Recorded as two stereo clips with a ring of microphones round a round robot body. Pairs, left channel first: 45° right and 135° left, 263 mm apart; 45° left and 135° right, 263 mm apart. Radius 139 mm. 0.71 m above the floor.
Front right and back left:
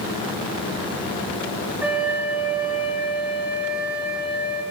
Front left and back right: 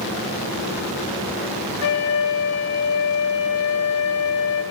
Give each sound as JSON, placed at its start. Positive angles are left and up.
{"t": 1.8, "sound": "a flute", "azimuth_deg": 55, "distance_m": 2.5}